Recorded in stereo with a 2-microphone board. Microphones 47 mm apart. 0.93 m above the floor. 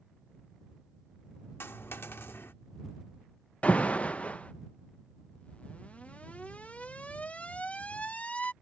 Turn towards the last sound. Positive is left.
turn(degrees=30)  # may be behind; listen again after turning